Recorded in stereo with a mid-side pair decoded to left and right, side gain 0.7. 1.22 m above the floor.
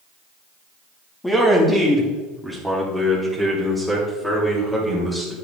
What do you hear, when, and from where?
1.2 s a man speaking: 15° left, 3 m; by 5.3 s straight ahead, 6 m